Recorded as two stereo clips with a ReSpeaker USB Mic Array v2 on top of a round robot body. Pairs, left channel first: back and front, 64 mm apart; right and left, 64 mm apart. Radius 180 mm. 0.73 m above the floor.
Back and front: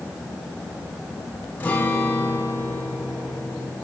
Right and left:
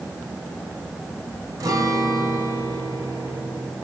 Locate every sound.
1.6 s a guitar: 115° left, 4 m